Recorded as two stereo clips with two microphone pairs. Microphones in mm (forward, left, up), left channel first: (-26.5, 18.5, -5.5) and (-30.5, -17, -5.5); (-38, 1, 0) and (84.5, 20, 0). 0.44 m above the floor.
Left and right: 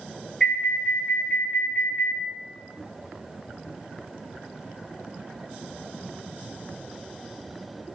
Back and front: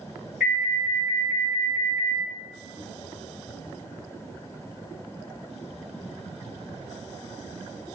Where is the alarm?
95° left, 2.0 m.